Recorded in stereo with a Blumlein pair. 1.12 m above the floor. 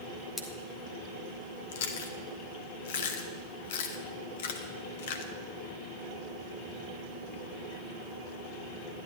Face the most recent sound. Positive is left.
turn(degrees=55)